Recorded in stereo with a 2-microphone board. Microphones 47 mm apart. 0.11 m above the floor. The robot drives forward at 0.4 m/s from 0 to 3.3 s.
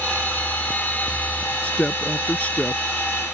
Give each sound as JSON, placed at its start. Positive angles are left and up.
{"t": 1.6, "sound": "a woman speaking", "side_deg": 30}